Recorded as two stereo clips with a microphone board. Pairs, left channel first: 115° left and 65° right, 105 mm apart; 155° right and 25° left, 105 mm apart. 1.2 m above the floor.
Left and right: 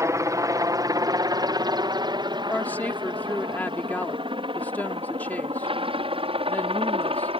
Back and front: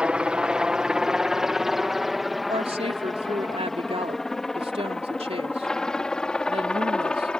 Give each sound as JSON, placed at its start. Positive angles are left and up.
{"t": 0.0, "sound": "a helicopter", "azimuth_deg": -50}
{"t": 2.5, "sound": "a woman speaking", "azimuth_deg": 40}